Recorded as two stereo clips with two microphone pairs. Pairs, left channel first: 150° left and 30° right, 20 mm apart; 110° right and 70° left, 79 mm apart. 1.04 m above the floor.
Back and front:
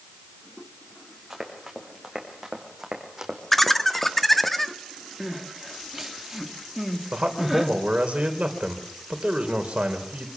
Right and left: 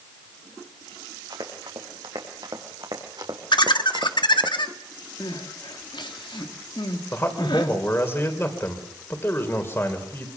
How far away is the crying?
About 2.5 m.